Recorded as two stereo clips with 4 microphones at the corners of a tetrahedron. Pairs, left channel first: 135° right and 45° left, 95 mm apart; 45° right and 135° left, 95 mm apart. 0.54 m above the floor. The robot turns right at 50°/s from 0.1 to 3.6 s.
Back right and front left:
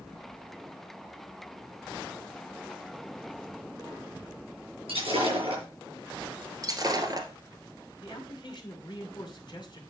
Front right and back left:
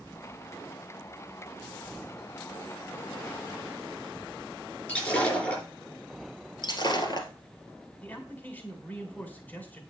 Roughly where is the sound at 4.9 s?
Ahead left.